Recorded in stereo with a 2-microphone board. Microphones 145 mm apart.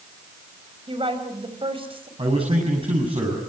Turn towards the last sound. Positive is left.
turn(degrees=-40)  # may be behind; listen again after turning